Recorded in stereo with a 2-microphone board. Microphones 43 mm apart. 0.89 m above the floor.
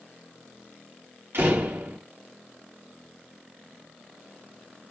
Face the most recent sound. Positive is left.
turn(degrees=-75)  # may be behind; listen again after turning